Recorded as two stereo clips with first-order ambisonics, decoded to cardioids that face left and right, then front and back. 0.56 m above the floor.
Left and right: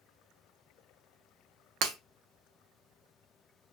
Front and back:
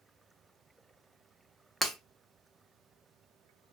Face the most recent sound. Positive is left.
turn(degrees=-80)